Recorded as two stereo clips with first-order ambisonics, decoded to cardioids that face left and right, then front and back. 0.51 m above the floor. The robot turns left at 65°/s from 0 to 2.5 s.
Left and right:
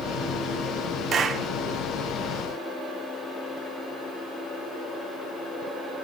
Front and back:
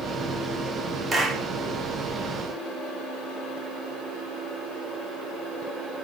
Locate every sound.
1.1 s a clap: 125° right, 1.1 m; by 1.5 s 150° right, 1.1 m